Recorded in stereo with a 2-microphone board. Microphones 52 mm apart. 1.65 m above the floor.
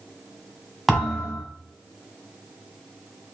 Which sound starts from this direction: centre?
A thud, at 0.9 s.